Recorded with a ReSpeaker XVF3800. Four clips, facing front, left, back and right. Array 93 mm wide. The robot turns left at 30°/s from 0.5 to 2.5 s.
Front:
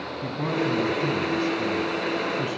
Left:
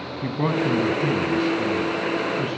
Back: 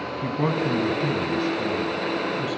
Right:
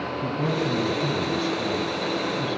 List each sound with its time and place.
0.2 s a man speaking: 115° left, 1.5 m; by 2.6 s 55° left, 1.5 m